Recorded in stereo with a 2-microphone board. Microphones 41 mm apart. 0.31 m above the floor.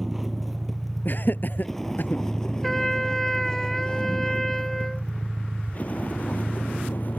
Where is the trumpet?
10° left (ahead or behind).